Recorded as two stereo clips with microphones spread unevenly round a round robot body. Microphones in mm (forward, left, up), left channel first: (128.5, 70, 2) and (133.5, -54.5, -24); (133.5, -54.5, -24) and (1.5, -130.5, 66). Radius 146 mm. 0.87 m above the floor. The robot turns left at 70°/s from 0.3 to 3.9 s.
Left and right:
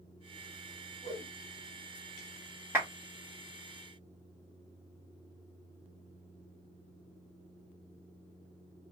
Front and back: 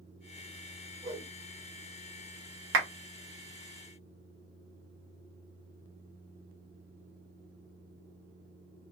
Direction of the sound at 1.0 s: 165° left.